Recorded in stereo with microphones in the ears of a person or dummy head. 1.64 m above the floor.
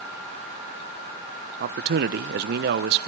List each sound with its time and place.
1.6 s a man speaking: 55° right (ahead or behind), 1.0 m